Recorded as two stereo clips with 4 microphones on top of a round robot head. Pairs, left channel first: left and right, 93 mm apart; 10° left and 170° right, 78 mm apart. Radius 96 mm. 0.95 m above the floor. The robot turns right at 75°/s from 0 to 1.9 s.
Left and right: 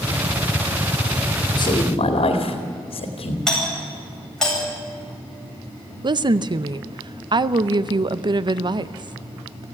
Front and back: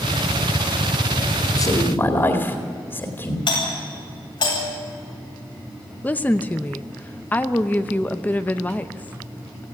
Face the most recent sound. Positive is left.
turn(degrees=-55)